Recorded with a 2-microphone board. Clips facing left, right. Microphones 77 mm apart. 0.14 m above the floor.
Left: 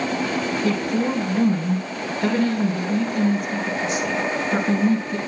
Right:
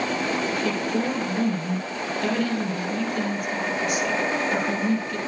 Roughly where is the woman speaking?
Left.